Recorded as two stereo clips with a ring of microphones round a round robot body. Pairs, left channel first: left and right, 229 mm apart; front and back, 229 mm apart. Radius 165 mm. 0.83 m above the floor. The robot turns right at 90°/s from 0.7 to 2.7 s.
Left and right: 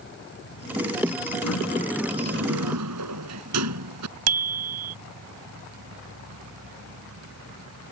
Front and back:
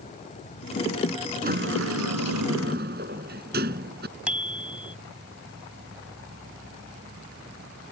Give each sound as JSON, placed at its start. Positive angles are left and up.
{"t": 0.0, "sound": "an insect", "azimuth_deg": 60}
{"t": 1.4, "sound": "a sliding door", "azimuth_deg": 130}
{"t": 4.3, "sound": "a bicycle bell", "azimuth_deg": -95}